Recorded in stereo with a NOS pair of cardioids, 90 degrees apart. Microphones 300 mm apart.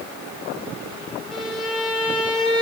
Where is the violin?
Straight ahead, 3 m.